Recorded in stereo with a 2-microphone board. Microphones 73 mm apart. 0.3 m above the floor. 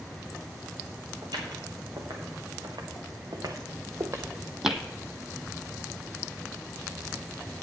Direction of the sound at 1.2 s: 75° right (ahead or behind).